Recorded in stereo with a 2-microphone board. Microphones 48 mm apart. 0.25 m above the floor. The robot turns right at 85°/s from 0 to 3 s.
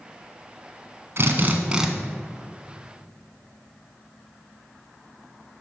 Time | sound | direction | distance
1.2 | a drill | 70° right | 1.5 m